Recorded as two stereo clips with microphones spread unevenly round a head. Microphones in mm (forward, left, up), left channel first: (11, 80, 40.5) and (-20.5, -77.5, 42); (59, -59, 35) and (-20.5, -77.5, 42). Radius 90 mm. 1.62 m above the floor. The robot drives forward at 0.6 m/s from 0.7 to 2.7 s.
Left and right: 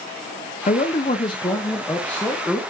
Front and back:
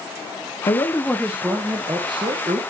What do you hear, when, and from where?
0.7 s a man speaking: 45° left, 0.6 m; by 2.6 s 165° left, 1.1 m